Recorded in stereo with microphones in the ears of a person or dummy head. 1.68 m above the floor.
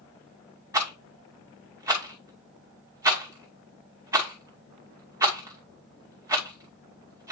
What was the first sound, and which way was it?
A rattle, 15° right (ahead or behind).